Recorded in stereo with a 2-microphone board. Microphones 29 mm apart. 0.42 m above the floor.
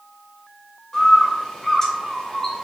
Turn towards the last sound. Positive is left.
turn(degrees=20)  # may be behind; listen again after turning